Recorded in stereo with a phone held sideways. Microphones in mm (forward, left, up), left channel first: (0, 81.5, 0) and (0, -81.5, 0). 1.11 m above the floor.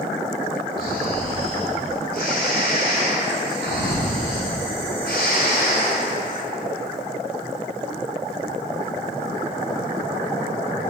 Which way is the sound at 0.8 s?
75° left (ahead or behind).